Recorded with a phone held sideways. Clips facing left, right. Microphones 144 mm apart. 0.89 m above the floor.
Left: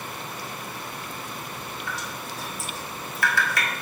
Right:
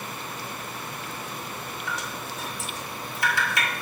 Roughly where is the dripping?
Right.